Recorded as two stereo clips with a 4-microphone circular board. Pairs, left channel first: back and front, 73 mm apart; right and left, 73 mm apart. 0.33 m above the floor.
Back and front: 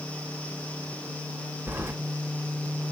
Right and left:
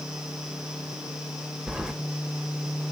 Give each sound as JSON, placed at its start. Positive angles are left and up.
{"t": 1.7, "sound": "keys jangling", "azimuth_deg": 20, "distance_m": 1.0}